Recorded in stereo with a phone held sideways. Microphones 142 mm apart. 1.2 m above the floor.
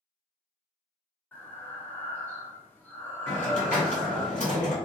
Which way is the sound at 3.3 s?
60° left (ahead or behind).